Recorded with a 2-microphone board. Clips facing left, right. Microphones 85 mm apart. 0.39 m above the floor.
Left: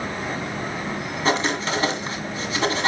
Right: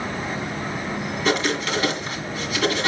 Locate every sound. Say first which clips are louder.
1.2 s writing: even; 35° left (ahead or behind), 2 m